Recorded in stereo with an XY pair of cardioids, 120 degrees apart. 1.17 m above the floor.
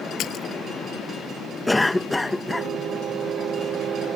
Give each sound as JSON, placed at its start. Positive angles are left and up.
{"t": 0.2, "sound": "a splash", "azimuth_deg": 60}
{"t": 1.7, "sound": "a cough", "azimuth_deg": 10}